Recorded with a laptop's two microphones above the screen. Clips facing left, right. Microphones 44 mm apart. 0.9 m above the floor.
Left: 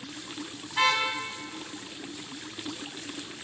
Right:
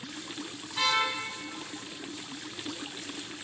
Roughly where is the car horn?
Left.